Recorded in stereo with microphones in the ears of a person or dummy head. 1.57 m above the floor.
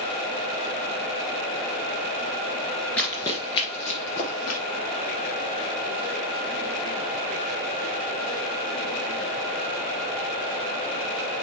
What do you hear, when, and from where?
3.0 s running footsteps: 10° left (ahead or behind), 1.7 m; by 4.6 s 50° left (ahead or behind), 2.5 m